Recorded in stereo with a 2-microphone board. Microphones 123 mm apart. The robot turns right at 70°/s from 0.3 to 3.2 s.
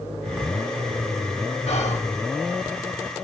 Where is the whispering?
60° left (ahead or behind), 1.4 m; by 2.0 s 75° left (ahead or behind), 1.4 m.